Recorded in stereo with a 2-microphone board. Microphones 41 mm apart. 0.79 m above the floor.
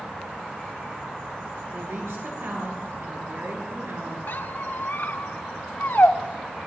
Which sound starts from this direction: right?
A woman speaking, at 1.7 s.